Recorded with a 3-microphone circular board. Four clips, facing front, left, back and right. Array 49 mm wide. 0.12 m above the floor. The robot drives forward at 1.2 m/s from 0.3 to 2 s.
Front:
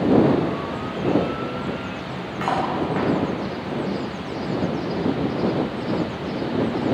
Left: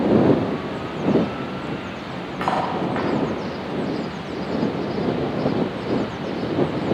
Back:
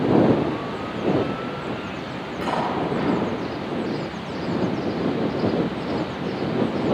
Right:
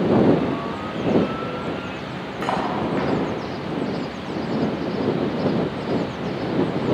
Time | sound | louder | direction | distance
2.4 | cutlery clinking | left 1 dB, front 1 dB | 65° left | 10 m